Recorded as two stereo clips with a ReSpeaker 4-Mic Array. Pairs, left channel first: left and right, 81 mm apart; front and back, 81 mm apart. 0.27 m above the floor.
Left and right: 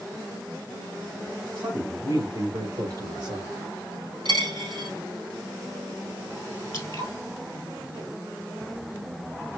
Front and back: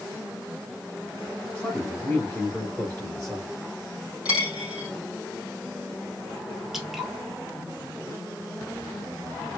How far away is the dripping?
About 1.5 m.